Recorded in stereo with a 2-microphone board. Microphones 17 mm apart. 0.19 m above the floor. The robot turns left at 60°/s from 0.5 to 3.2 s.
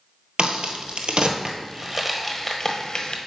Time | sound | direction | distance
0.4 | a crack | 70° right (ahead or behind) | 1.0 m